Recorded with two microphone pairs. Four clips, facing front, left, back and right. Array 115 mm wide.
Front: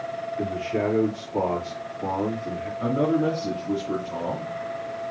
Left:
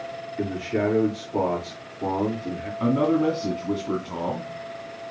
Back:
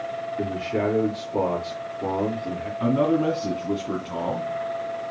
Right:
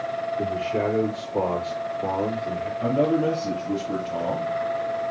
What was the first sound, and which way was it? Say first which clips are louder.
A man speaking: left 2 dB, back 1 dB; 125° left.